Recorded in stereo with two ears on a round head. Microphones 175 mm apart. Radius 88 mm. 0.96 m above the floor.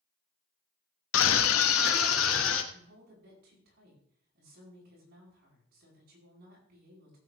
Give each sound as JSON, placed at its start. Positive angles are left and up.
{"t": 1.1, "sound": "a scream", "side_deg": 70, "distance_m": 1.0}
{"t": 2.7, "sound": "a woman speaking", "side_deg": -55, "distance_m": 9.0}